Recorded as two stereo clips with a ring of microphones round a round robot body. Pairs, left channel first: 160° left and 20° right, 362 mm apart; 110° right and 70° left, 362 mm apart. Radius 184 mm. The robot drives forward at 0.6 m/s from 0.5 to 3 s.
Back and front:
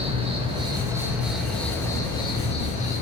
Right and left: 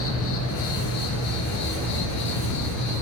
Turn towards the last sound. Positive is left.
turn(degrees=-140)